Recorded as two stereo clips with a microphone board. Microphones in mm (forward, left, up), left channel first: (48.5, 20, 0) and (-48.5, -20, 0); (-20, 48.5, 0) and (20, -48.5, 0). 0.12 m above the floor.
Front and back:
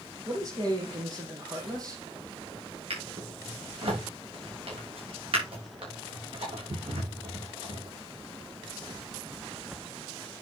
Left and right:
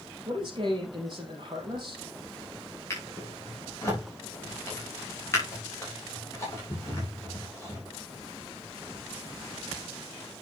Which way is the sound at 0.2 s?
110° right.